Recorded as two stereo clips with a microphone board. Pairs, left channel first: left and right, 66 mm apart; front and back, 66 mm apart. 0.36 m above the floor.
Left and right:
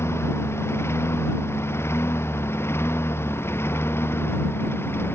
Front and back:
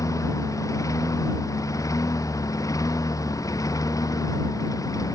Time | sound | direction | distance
0.0 | a lawn mower | 40° left | ?